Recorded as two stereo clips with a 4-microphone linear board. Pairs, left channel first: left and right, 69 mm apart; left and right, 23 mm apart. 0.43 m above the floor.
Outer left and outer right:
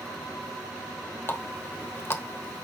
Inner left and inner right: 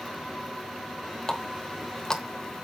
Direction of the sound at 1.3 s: 35° left (ahead or behind).